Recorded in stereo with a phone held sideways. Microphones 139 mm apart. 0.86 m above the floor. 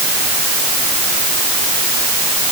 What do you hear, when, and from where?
Only background noise.